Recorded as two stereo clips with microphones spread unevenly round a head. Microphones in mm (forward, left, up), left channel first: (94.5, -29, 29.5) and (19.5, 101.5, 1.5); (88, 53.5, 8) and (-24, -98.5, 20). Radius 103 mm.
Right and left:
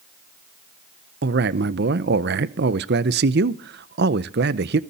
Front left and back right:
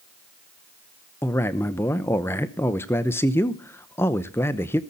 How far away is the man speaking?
About 0.8 m.